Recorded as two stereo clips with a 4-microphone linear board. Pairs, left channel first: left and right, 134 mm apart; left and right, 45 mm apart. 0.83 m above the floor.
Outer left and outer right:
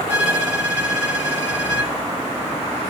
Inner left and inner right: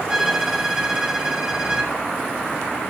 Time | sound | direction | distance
0.1 | a violin | 5° right (ahead or behind) | 2 m